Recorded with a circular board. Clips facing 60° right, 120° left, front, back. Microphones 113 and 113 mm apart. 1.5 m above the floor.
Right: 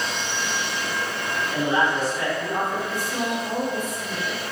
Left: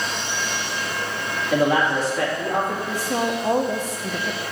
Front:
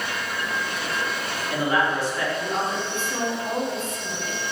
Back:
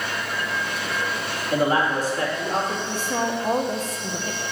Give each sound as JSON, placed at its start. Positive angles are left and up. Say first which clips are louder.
{"t": 1.5, "sound": "a man speaking", "louder": "left 4 dB, back 2 dB", "azimuth_deg": 130, "distance_m": 3.0}
{"t": 2.9, "sound": "a woman speaking", "louder": "left 3 dB, back 2 dB", "azimuth_deg": 125, "distance_m": 1.3}